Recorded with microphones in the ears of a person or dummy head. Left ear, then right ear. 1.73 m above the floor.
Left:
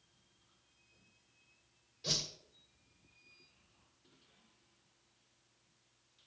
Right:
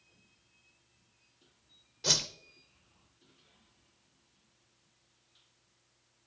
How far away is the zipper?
No zipper in this recording.